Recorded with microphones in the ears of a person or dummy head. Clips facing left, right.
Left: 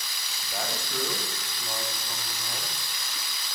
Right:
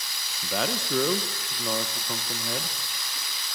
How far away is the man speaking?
About 1.3 m.